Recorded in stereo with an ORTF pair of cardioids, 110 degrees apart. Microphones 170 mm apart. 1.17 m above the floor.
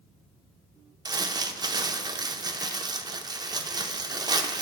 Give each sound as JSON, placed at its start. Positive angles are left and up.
{"t": 1.1, "sound": "crumpling", "azimuth_deg": -25, "distance_m": 0.5}